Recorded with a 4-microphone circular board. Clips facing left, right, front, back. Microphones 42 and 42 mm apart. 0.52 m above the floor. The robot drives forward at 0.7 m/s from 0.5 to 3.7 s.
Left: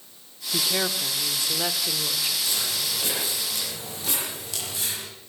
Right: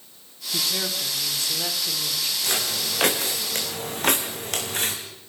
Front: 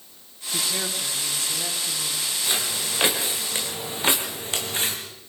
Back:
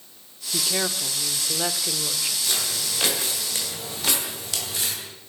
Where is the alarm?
No alarm in this recording.